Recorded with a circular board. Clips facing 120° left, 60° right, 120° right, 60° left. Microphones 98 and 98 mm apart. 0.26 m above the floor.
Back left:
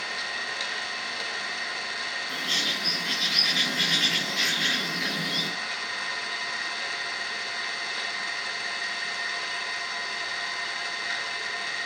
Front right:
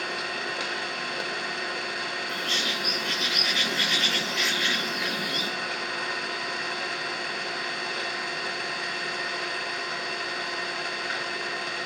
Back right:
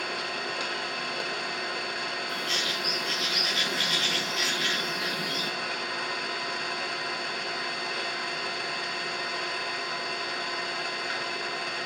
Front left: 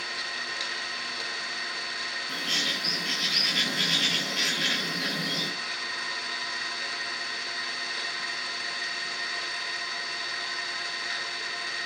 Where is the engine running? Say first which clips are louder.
Front right 3 dB, back right 4 dB; 90° right, 0.9 m.